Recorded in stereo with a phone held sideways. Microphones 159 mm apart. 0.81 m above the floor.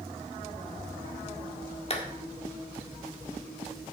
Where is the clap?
40° left (ahead or behind), 1.8 m.